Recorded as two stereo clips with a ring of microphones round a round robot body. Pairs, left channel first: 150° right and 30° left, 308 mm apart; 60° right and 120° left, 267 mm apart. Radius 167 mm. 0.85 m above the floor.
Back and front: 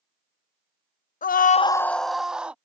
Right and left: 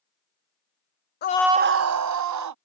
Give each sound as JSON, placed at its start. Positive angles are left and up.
{"t": 1.2, "sound": "a scream", "azimuth_deg": -95}